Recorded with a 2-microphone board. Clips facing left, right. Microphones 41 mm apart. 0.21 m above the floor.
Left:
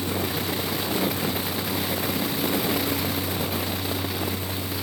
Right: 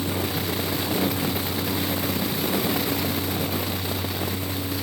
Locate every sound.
Only background noise.